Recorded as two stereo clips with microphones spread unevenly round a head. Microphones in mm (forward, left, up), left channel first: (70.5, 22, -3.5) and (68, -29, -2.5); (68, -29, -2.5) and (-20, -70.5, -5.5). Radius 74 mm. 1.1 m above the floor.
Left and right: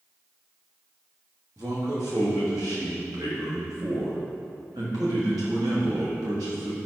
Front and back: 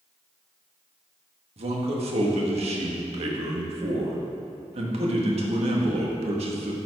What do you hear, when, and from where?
1.6 s a man speaking: 140° right, 1.5 m